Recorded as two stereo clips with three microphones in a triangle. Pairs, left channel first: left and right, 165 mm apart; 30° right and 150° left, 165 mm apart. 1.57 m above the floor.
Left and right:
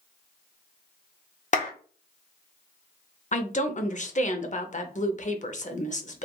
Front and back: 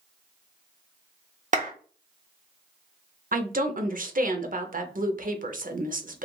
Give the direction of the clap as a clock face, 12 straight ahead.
8 o'clock.